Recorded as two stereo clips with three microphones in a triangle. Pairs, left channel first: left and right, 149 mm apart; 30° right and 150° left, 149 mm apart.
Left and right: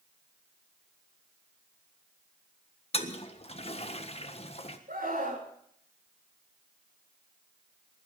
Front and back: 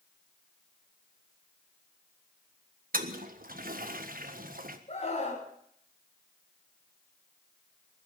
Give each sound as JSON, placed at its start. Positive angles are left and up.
{"t": 2.9, "sound": "a toilet flushing", "azimuth_deg": 135, "distance_m": 1.5}
{"t": 4.9, "sound": "a scream", "azimuth_deg": -75, "distance_m": 6.0}